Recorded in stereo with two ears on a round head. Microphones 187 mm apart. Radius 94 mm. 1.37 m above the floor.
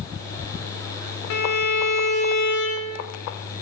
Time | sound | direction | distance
1.3 | a violin | 55° left (ahead or behind) | 0.5 m